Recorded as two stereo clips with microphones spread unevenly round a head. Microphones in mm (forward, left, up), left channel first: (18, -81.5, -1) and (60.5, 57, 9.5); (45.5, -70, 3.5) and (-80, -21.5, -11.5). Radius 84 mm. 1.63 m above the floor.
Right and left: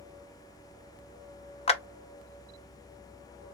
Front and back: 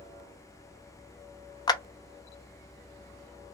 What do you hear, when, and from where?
1.7 s a clap: 65° right, 0.6 m